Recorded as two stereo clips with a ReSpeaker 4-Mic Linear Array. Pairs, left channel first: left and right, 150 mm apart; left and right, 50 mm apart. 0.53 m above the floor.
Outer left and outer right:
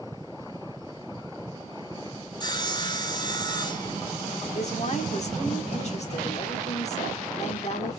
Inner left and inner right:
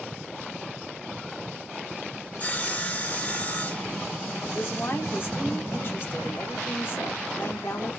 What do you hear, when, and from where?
2.4 s sawing: 30° left (ahead or behind), 1.3 m
4.5 s a woman speaking: 45° left (ahead or behind), 1.5 m